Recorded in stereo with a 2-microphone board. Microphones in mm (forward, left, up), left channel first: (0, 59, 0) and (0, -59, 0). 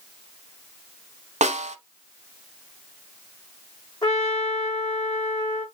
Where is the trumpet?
35° left (ahead or behind), 3.5 m.